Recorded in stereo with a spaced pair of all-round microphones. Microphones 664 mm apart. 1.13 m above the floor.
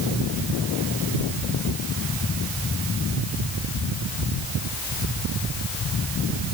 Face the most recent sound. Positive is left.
No sound to turn to.